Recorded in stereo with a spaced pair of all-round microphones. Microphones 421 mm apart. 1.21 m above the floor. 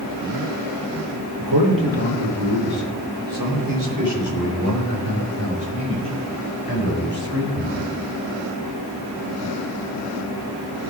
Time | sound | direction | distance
1.4 | a man speaking | 85° right | 3 m